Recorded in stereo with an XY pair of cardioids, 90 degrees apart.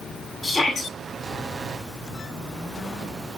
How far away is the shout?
About 6.5 m.